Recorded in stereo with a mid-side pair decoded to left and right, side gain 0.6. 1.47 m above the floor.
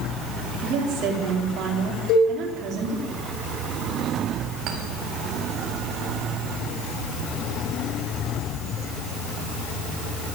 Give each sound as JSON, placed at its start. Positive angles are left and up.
{"t": 0.6, "sound": "a woman speaking", "azimuth_deg": -55, "distance_m": 4.5}
{"t": 2.1, "sound": "a cowbell", "azimuth_deg": 70, "distance_m": 7.5}
{"t": 4.7, "sound": "a clink", "azimuth_deg": -60, "distance_m": 6.0}